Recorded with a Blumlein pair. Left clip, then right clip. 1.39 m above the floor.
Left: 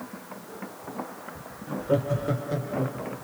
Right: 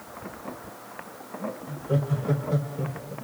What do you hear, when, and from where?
1.7 s laughter: 60° left, 2 m; by 3.1 s 65° left, 3 m